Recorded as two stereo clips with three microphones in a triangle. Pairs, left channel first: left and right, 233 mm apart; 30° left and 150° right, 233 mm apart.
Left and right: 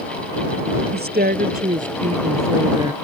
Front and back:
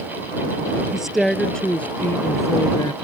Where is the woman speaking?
65° right; by 2.9 s 30° right.